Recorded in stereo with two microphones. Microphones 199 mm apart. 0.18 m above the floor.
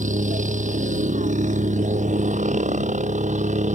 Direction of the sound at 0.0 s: 40° right (ahead or behind).